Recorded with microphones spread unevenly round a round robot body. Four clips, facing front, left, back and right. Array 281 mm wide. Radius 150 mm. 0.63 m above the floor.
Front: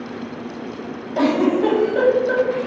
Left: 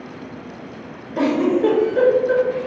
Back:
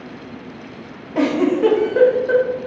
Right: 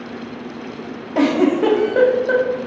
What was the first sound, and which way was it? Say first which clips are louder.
A giggle: right 2 dB, even; 105° right.